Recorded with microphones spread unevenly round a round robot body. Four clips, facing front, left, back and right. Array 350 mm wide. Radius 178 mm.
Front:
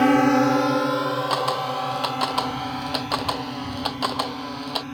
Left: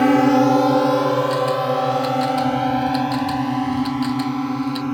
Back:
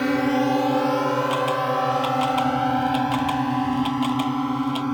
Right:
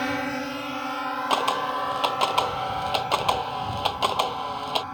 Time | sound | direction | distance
0.0 | a drone | 65° left | ?
1.3 | a camera shutter | 50° right | ?